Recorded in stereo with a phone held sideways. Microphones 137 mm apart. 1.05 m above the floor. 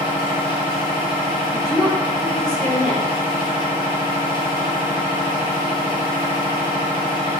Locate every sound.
0.0 s a machine running: 35° left (ahead or behind), 0.7 m
1.5 s a woman speaking: 25° left (ahead or behind), 1.2 m